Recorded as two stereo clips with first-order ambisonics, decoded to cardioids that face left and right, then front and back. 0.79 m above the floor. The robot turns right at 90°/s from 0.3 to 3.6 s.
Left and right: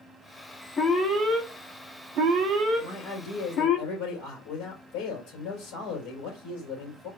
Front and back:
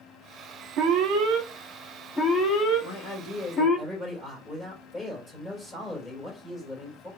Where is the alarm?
160° left, 1.5 m; by 3.8 s 55° left, 1.5 m.